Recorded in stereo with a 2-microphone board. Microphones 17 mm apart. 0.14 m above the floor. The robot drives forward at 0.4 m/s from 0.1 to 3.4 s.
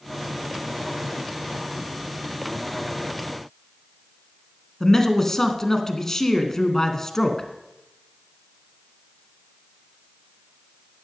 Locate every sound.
4.8 s a man speaking: 25° left (ahead or behind), 1.5 m